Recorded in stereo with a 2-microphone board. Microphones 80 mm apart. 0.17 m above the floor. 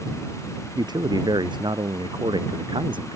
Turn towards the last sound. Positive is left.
turn(degrees=-70)  # may be behind; listen again after turning